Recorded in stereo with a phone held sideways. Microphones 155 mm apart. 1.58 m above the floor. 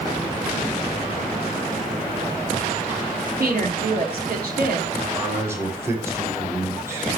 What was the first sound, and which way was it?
A woman speaking, 80° right.